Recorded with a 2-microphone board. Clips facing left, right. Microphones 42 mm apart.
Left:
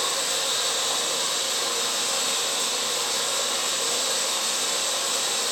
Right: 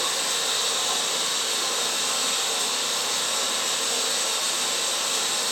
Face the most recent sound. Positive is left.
turn(degrees=-60)  # may be behind; listen again after turning